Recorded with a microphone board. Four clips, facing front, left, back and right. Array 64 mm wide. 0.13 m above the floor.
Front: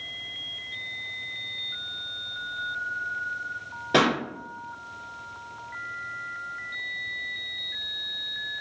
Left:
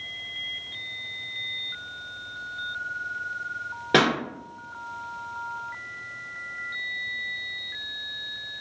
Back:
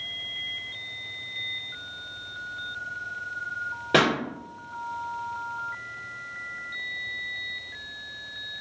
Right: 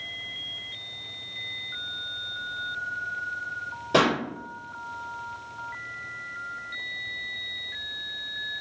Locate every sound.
3.9 s a pop: 105° left, 1.9 m